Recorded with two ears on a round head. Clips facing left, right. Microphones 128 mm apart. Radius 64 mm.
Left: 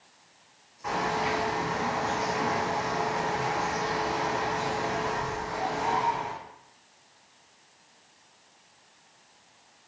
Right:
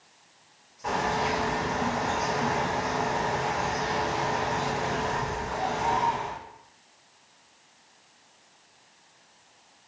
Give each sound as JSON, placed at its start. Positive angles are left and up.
{"t": 0.8, "sound": "a bird", "side_deg": -35, "distance_m": 1.2}